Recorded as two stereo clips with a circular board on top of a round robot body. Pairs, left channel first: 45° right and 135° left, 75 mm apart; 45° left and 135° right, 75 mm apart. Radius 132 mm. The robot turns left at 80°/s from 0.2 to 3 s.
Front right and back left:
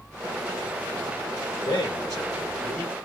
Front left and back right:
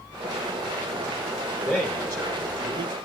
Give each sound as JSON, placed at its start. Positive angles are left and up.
{"t": 1.6, "sound": "a man speaking", "azimuth_deg": -55, "distance_m": 3.0}